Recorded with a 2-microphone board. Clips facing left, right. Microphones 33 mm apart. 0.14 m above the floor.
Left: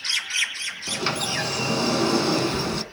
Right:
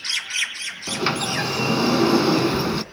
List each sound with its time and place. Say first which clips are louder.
0.9 s a sliding door: right 3 dB; 15° right (ahead or behind), 1.3 m